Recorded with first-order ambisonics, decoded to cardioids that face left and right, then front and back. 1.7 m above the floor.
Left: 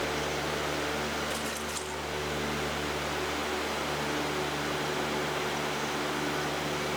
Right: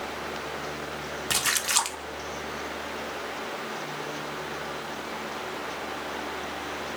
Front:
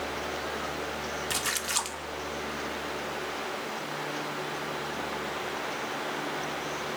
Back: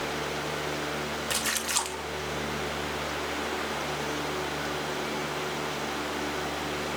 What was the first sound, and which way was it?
A splash, 95° right.